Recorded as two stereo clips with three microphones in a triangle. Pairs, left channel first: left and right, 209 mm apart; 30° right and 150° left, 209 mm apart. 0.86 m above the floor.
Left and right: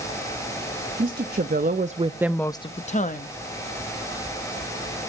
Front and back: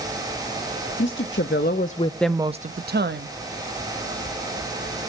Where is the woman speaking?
50° right, 1.4 m; by 3.4 s 130° left, 1.2 m.